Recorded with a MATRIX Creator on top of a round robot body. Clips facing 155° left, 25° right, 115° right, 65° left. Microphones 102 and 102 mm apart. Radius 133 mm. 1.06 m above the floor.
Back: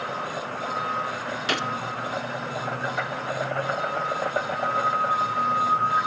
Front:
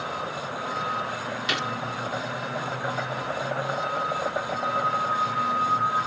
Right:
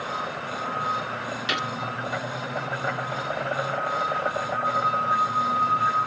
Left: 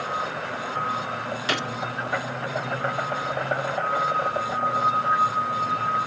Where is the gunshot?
115° left.